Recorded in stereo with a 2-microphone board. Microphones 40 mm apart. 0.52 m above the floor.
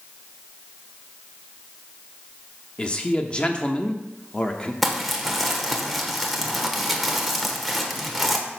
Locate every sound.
2.8 s a man speaking: 25° left (ahead or behind), 0.7 m
4.8 s crumpling: centre (ahead or behind), 1.2 m